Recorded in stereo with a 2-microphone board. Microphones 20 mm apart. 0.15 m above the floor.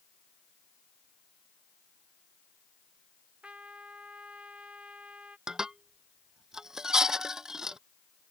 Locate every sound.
3.4 s a trumpet: 75° right (ahead or behind)
5.5 s dishes clattering: 30° right (ahead or behind)